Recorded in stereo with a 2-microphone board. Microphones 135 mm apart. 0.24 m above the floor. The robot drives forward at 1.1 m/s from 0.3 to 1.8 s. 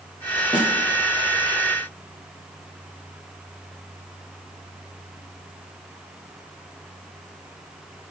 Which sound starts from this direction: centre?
A snare drum, at 0.5 s.